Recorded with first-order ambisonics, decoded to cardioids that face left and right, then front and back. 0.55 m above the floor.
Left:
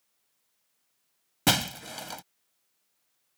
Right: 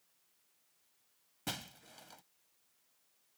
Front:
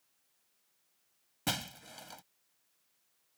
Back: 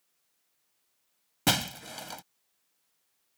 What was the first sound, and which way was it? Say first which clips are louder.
Breaking glass: left 18 dB, back 9 dB; 120° left.